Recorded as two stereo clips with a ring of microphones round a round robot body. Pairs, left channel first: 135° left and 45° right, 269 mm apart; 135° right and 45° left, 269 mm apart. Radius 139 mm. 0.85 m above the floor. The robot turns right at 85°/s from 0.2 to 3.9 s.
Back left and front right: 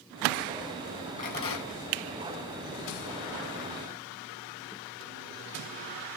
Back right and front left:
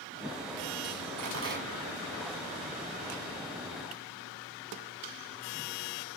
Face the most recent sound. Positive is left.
turn(degrees=-60)